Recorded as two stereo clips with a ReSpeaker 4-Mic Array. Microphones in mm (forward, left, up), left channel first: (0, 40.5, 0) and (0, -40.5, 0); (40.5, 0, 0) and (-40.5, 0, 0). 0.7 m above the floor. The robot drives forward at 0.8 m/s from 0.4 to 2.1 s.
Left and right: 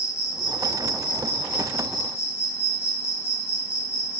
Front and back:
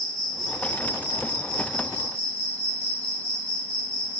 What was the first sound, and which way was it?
An insect, 95° left.